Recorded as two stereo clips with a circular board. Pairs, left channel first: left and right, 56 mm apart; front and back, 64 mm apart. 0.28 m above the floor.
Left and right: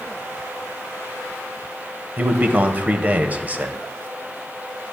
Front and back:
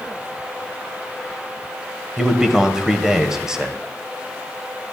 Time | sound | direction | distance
2.2 | a man speaking | 110° right | 1.0 m